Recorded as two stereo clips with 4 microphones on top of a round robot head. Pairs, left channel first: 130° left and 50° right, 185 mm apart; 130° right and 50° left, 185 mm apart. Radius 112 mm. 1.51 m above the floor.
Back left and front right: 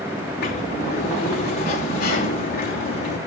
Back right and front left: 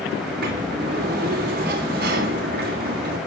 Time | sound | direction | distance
0.2 | a sliding door | 90° left | 3 m